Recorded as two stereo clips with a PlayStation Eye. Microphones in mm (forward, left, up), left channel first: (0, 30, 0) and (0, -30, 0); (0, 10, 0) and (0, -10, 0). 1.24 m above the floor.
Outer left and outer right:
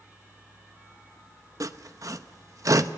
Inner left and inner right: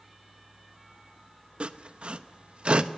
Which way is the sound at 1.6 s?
65° right (ahead or behind).